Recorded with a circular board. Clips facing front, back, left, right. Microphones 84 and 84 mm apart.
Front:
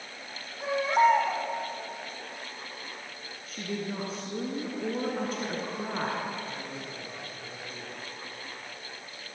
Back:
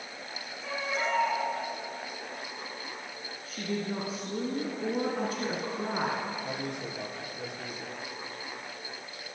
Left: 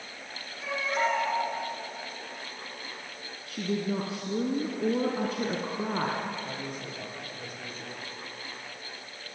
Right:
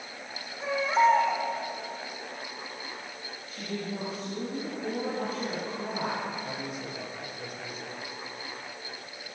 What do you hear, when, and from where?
0.6 s a baby crying: 30° right, 9.5 m
3.5 s a woman speaking: 90° left, 4 m
6.4 s a man speaking: 175° right, 7.5 m